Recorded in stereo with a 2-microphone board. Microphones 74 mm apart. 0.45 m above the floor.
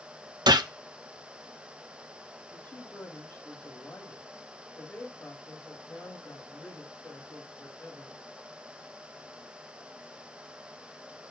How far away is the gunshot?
About 0.7 m.